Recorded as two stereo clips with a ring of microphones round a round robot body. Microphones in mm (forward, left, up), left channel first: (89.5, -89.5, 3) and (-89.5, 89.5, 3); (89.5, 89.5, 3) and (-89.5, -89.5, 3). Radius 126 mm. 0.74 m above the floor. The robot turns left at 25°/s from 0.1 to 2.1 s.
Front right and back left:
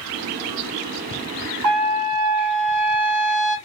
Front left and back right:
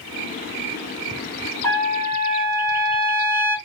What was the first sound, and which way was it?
A trumpet, 130° left.